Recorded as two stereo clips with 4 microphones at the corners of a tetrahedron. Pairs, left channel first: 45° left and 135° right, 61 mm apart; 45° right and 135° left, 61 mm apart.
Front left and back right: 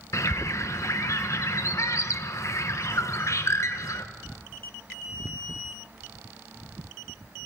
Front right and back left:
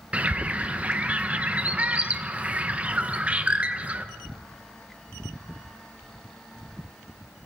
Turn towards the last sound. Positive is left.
turn(degrees=75)